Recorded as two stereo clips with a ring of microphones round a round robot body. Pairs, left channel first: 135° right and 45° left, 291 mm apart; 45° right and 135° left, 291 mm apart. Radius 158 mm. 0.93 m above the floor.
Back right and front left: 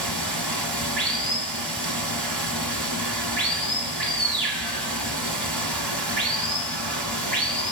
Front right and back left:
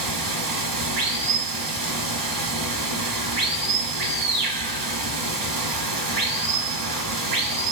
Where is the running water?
140° left, 1.3 m.